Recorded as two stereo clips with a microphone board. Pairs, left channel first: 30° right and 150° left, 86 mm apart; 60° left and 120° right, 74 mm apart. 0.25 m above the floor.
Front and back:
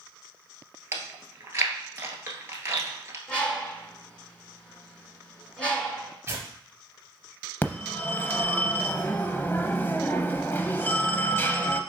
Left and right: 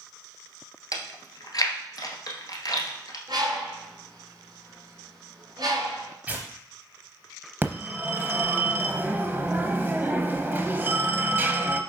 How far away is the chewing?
About 1.2 m.